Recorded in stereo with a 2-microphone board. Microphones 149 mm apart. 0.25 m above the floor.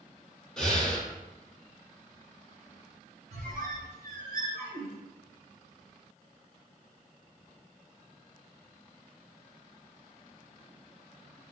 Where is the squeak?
80° right, 0.9 m.